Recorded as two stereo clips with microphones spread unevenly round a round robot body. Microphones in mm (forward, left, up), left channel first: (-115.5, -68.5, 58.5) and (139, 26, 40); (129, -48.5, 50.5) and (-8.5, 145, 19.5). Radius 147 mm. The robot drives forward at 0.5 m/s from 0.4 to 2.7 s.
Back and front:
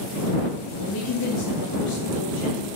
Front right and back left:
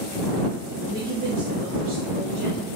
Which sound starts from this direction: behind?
A woman speaking, at 0.8 s.